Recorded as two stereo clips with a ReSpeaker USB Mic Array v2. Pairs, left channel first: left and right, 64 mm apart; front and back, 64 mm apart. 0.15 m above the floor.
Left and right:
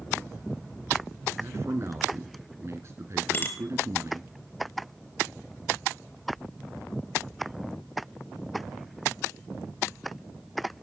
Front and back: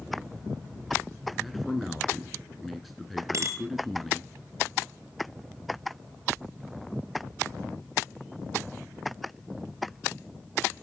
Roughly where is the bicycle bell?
Behind left.